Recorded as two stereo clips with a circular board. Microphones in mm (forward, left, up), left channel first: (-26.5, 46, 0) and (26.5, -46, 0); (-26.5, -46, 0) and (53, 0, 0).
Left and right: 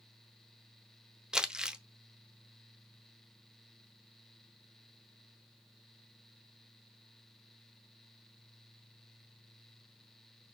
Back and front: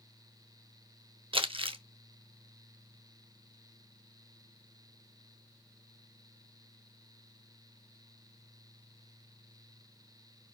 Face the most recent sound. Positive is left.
turn(degrees=25)